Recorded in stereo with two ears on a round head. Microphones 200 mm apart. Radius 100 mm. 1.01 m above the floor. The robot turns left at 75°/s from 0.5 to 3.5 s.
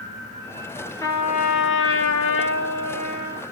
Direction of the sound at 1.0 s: 165° left.